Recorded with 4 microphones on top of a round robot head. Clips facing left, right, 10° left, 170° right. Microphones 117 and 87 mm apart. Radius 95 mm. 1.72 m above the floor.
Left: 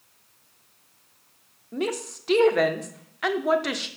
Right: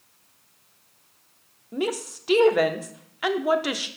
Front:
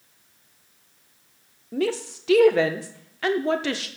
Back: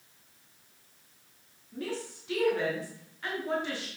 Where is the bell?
I don't hear a bell.